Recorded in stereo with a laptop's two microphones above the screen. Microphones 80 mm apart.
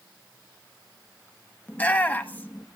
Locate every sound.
1.7 s a shout: 20° left (ahead or behind), 1.2 m